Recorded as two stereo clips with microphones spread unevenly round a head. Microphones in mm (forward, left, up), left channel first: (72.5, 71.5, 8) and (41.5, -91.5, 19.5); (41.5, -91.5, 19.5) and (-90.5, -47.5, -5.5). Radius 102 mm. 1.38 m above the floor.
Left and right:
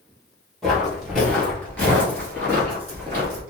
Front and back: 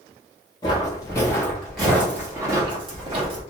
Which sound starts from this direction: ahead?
Footsteps, at 0.6 s.